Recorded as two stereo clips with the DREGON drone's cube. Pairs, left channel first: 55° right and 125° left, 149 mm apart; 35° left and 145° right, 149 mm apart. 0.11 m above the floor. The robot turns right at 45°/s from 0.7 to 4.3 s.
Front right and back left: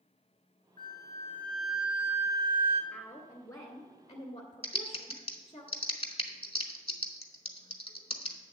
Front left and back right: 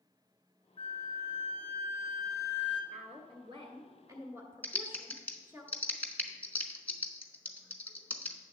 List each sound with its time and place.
0.8 s a flute: 5° right, 0.9 m; by 2.8 s 85° left, 0.9 m
2.9 s a woman speaking: 145° right, 1.4 m; by 5.6 s 80° right, 1.4 m
4.6 s typing on a keyboard: 40° right, 0.9 m